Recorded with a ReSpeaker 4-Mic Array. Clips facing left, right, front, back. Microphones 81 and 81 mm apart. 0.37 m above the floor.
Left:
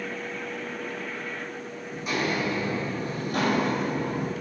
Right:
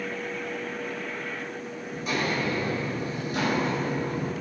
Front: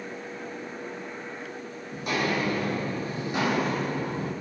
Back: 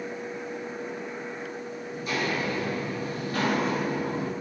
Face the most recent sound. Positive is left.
turn(degrees=110)